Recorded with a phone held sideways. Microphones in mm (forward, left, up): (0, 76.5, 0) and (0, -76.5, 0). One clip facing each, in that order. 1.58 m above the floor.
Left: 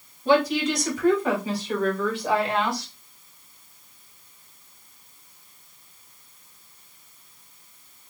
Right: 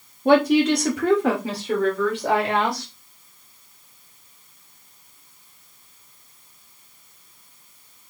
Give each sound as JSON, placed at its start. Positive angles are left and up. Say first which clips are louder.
{"t": 0.2, "sound": "a woman speaking", "louder": "right 5 dB", "side_deg": -55, "distance_m": 1.4}